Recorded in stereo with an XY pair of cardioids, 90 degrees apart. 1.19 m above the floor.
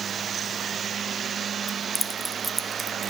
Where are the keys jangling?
30° left, 0.8 m; by 3.1 s 45° right, 0.6 m.